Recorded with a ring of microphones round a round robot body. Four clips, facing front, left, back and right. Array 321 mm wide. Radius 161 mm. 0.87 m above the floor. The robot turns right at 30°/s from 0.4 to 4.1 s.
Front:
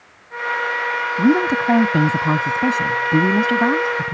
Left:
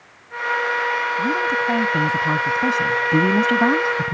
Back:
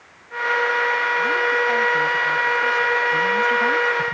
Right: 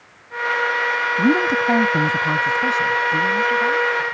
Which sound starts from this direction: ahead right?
A woman speaking, at 1.2 s.